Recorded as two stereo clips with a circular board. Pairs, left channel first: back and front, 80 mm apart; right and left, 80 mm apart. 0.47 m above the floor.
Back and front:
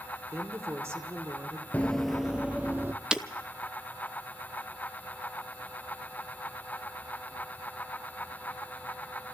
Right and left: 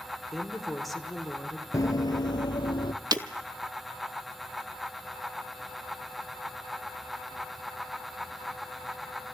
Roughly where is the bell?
I don't hear a bell.